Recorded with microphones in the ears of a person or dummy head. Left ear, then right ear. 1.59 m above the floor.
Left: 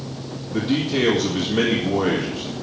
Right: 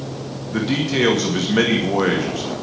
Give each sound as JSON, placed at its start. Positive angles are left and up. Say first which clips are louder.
{"t": 0.5, "sound": "a man speaking", "louder": "right 1 dB", "side_deg": -55, "distance_m": 2.5}